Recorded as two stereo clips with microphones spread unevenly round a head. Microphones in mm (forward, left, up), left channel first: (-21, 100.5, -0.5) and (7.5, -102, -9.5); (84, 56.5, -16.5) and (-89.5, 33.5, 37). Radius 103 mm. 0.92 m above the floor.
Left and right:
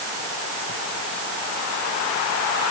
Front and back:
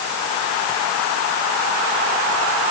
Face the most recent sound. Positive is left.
No sound to turn to.